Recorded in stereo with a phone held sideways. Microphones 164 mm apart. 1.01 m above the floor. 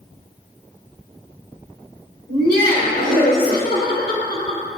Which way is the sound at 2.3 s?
85° left.